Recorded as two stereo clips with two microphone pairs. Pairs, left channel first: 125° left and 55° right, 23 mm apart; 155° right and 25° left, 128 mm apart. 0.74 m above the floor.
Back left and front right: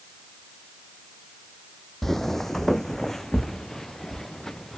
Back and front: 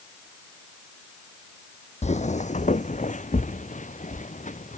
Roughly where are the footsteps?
Behind.